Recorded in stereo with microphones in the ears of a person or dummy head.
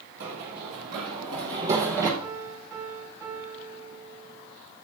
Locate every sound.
0.2 s running footsteps: 50° right (ahead or behind), 2.5 m; by 2.1 s 10° right (ahead or behind), 2.5 m
2.2 s a piano: 15° right (ahead or behind), 2 m